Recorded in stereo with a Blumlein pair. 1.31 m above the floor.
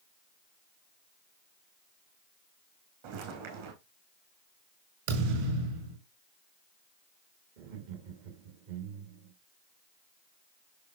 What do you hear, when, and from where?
3.0 s footsteps: 50° right, 4.5 m
5.1 s a thud: 55° right, 5.5 m
7.6 s laughter: 50° right, 2 m